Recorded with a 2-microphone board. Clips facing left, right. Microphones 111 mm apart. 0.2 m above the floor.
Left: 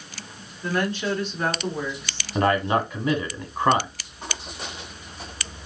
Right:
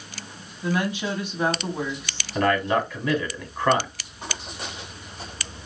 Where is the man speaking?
20° left (ahead or behind), 1.2 m.